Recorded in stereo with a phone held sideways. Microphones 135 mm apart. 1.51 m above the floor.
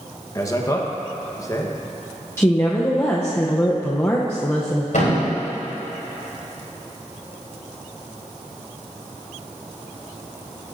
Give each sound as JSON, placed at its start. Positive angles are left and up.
{"t": 0.3, "sound": "a man speaking", "side_deg": 25, "distance_m": 1.2}
{"t": 2.4, "sound": "a woman speaking", "side_deg": 20, "distance_m": 0.8}
{"t": 4.9, "sound": "a thud", "side_deg": 75, "distance_m": 3.5}